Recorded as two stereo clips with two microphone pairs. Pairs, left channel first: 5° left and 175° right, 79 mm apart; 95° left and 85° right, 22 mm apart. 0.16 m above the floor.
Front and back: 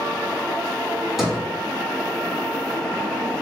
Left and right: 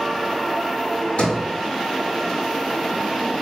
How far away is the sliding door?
About 1.3 m.